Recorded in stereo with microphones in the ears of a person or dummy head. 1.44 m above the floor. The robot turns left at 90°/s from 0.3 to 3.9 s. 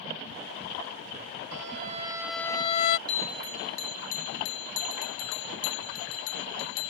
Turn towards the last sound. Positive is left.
turn(degrees=100)